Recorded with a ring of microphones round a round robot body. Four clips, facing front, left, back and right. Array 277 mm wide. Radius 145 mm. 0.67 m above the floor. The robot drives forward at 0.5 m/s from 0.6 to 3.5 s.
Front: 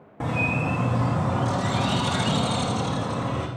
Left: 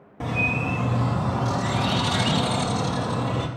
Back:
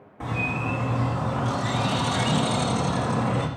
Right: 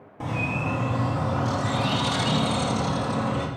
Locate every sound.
0.2 s a bird: 15° left, 1.4 m; by 3.5 s 160° left, 1.3 m